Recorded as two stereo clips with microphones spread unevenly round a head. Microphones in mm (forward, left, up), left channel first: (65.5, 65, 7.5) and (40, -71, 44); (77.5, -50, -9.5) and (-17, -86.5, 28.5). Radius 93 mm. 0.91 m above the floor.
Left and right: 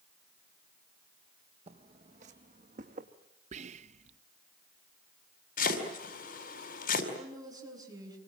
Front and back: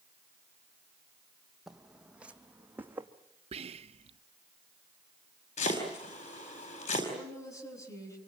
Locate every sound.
1.7 s footsteps: 85° right, 1.6 m; by 3.1 s 100° right, 2.5 m
3.5 s whispering: 140° right, 0.6 m
5.6 s chopping: 60° left, 4.5 m
7.1 s a woman speaking: 40° right, 8 m